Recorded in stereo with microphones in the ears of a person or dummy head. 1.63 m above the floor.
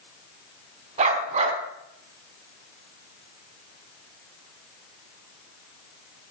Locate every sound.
1.0 s a dog barking: 45° right (ahead or behind), 4.5 m